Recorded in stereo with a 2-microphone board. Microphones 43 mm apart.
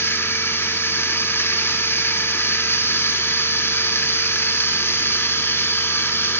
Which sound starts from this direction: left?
Running water, at 0.0 s.